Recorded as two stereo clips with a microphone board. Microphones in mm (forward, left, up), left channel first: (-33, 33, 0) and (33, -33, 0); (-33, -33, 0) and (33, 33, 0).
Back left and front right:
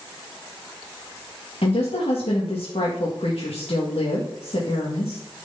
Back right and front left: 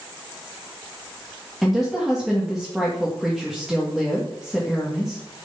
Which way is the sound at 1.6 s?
135° left.